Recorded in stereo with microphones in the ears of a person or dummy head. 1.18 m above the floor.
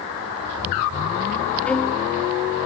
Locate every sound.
1.7 s a violin: 5° left (ahead or behind), 1.0 m